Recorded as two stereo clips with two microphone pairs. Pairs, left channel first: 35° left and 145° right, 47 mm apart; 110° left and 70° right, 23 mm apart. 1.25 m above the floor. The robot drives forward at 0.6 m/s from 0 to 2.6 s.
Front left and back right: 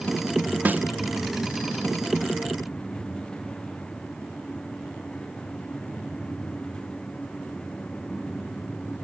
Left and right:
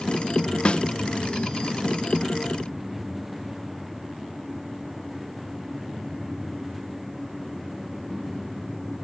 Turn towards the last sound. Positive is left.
turn(degrees=175)